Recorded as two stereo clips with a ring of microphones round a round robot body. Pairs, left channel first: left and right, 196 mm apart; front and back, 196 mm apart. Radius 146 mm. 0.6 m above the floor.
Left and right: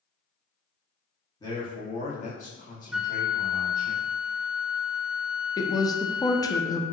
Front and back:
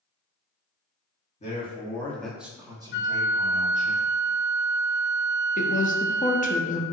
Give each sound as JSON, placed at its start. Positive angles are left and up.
{"t": 1.4, "sound": "a man speaking", "azimuth_deg": 30, "distance_m": 1.5}
{"t": 2.9, "sound": "a flute", "azimuth_deg": -5, "distance_m": 0.6}
{"t": 5.6, "sound": "a woman speaking", "azimuth_deg": 25, "distance_m": 0.7}